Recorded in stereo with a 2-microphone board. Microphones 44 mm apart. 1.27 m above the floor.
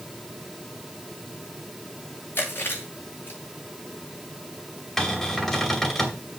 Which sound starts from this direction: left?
Chewing, at 2.4 s.